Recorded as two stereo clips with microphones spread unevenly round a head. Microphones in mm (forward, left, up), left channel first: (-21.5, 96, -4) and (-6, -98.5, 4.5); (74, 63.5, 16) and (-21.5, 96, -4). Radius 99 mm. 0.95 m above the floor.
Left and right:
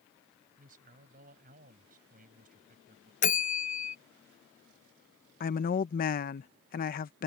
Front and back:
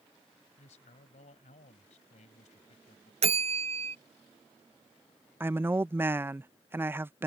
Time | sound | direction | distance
0.6 | a man speaking | 35° right | ?
3.2 | a bell | 145° left | ?
5.4 | a woman speaking | 110° left | ?